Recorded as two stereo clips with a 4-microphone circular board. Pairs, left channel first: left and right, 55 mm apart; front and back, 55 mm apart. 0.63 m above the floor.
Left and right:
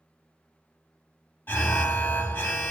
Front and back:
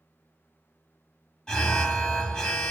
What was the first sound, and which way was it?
An alarm, 70° left.